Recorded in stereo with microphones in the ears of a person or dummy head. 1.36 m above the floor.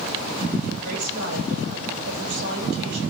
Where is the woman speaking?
85° right, 9.5 m.